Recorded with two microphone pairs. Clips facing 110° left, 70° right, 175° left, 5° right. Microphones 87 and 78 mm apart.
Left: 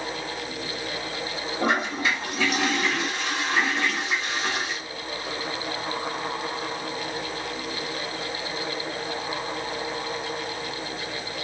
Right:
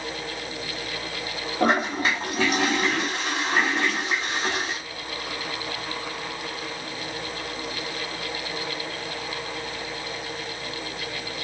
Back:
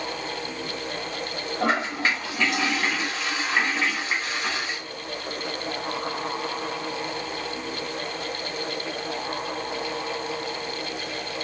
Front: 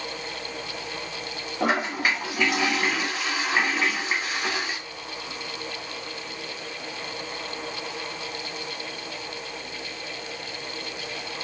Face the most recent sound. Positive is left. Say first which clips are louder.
# right 3 dB, even
turn(degrees=-80)